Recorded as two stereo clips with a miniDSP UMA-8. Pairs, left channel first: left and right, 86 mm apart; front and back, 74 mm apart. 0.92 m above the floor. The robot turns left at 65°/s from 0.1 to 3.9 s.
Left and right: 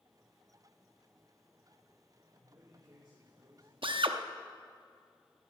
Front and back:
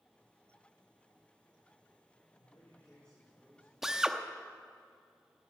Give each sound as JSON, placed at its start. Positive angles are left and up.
{"t": 2.3, "sound": "a man speaking", "azimuth_deg": -30, "distance_m": 3.0}
{"t": 3.8, "sound": "a drill", "azimuth_deg": -95, "distance_m": 0.7}